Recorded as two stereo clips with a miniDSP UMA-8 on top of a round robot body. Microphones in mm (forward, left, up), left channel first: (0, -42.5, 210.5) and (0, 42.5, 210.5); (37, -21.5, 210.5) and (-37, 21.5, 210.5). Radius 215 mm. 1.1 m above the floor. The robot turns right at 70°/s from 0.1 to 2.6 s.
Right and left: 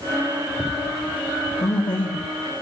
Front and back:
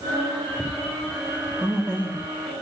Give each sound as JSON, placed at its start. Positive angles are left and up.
{"t": 1.6, "sound": "a man speaking", "azimuth_deg": -130, "distance_m": 3.0}